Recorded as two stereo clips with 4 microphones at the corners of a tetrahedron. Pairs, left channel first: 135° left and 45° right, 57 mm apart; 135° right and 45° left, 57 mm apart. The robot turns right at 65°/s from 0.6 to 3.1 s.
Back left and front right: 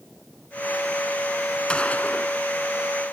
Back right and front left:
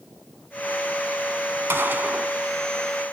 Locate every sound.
1.7 s a gunshot: 65° left, 1.3 m; by 2.3 s 110° left, 1.3 m